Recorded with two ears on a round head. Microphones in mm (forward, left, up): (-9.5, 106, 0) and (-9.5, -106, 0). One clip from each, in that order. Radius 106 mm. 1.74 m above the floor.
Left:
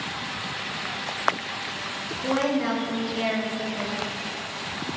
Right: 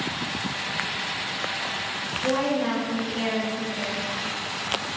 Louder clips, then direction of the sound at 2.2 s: Even; 60° left (ahead or behind).